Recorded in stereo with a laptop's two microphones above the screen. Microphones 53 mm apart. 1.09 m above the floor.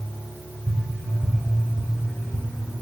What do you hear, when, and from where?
0.7 s tapping: 75° right (ahead or behind), 1.7 m